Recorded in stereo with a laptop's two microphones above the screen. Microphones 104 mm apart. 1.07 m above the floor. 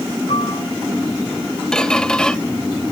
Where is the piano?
70° left (ahead or behind), 4.5 m.